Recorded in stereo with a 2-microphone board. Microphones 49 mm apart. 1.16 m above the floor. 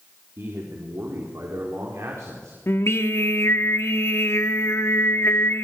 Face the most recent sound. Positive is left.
turn(degrees=60)  # may be behind; listen again after turning